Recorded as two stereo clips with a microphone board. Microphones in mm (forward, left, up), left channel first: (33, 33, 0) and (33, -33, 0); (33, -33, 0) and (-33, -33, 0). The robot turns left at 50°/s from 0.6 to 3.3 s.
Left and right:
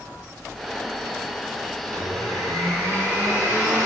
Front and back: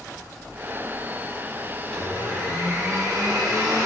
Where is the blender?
80° right, 1.2 m; by 3.9 s 150° right, 1.2 m.